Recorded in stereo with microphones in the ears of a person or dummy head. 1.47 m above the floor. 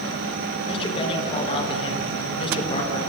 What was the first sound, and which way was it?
A man speaking, 30° left (ahead or behind).